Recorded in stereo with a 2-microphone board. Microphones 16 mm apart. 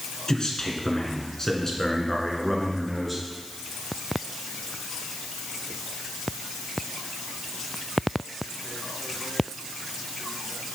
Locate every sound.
0.3 s a man speaking: 55° left (ahead or behind), 1.9 m; by 3.2 s centre (ahead or behind), 2.5 m